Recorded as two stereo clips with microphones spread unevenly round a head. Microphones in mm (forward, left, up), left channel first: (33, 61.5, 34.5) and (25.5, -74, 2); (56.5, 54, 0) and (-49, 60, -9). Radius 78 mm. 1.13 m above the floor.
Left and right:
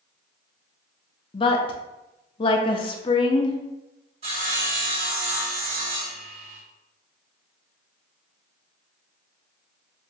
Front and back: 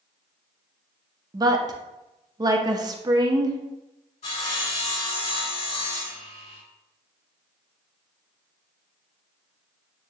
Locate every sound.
1.3 s a woman speaking: 145° left, 0.7 m
4.2 s sawing: 50° right, 2 m